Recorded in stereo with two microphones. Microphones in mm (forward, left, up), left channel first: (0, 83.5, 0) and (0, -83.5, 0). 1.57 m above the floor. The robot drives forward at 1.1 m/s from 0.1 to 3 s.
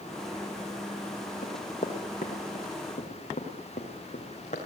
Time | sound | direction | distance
1.4 | running footsteps | 50° left (ahead or behind) | 6.5 m